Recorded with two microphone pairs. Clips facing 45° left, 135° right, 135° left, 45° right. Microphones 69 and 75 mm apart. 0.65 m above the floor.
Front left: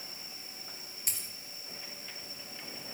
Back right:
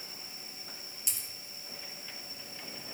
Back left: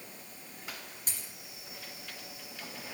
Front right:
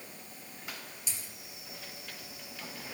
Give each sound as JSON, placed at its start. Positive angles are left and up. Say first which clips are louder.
{"t": 1.1, "sound": "a dropped coin", "louder": "front left 2 dB, even", "azimuth_deg": 90, "distance_m": 3.0}